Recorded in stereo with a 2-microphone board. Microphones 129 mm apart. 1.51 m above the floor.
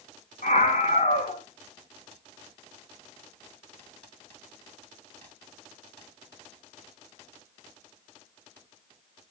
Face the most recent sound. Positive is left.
turn(degrees=70)  # may be behind; listen again after turning